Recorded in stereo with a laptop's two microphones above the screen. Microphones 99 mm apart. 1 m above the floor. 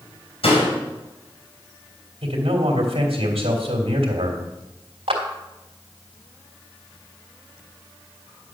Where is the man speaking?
80° right, 2.5 m.